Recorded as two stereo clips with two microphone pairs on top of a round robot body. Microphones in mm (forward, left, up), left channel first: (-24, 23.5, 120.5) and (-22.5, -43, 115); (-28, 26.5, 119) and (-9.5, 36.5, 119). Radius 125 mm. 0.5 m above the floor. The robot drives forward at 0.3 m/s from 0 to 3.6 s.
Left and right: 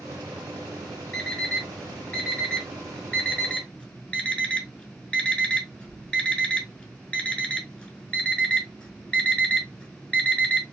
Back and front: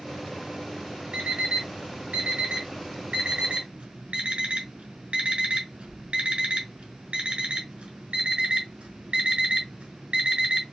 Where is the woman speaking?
No woman speaking in this recording.